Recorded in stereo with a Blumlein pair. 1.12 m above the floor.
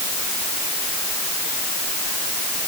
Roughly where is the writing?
I don't hear writing.